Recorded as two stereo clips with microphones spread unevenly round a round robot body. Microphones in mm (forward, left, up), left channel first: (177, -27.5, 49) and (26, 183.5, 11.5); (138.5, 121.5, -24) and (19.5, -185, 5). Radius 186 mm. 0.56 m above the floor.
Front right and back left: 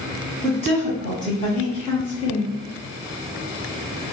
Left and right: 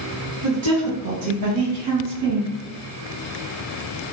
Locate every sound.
0.4 s a woman speaking: 95° right, 2.0 m; by 2.5 s 135° right, 1.3 m